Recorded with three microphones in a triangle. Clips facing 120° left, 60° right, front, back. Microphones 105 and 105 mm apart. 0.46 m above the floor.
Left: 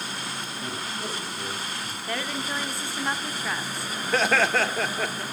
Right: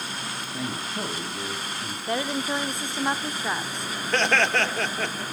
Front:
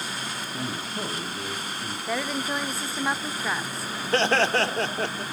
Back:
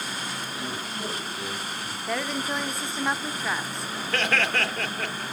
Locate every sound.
0.5 s a man speaking: 45° right, 4 m
2.1 s a woman speaking: 85° right, 0.7 m
4.1 s laughter: 35° left, 0.9 m